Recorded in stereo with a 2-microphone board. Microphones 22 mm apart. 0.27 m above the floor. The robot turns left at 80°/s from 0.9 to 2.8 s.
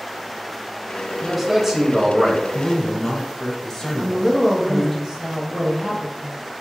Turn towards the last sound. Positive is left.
turn(degrees=-20)  # may be behind; listen again after turning